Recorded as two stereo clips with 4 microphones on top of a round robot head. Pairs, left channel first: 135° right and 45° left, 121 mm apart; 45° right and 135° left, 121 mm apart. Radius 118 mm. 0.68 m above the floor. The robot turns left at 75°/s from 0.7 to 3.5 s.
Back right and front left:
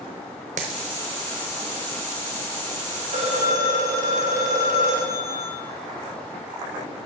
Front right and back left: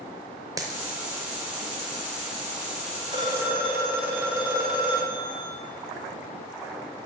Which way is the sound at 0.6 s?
75° left.